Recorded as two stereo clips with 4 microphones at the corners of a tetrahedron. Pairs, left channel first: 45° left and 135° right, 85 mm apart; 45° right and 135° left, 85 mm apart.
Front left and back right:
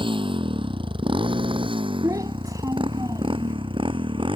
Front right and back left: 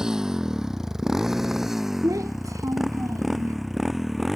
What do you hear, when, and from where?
0.0 s a motorcycle: 145° right; by 4.4 s 135° right
2.0 s a child speaking: straight behind